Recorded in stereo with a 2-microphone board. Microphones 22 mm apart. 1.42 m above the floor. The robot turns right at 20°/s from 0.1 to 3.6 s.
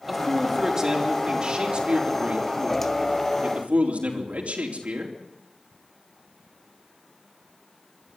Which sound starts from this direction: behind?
A man speaking, at 0.1 s.